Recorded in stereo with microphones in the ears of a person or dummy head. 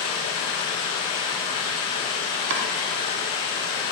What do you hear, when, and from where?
0.0 s running water: 30° left (ahead or behind), 0.9 m
2.5 s chopping: 60° right (ahead or behind), 0.8 m